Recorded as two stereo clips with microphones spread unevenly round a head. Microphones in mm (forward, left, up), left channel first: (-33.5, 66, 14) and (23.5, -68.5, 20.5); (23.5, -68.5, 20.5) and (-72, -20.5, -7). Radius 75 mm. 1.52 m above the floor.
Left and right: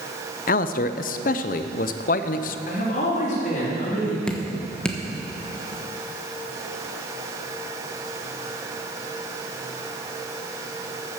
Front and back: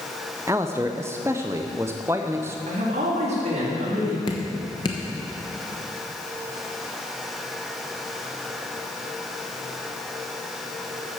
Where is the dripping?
25° left, 1.0 m.